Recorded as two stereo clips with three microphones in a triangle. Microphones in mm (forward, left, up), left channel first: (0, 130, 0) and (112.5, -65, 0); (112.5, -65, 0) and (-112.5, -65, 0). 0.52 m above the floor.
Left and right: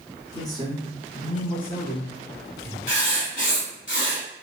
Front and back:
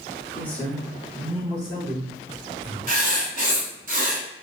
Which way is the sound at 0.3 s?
65° left.